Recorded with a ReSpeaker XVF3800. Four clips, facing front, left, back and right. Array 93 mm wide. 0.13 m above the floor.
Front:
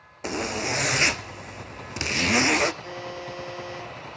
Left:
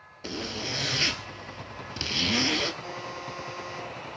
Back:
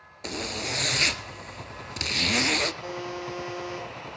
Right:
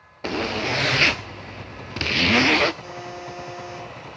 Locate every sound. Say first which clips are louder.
0.2 s a zipper: right 10 dB, front 5 dB; 70° right, 0.5 m
2.8 s a buzzer: right 2 dB, back 1 dB; 170° right, 9.5 m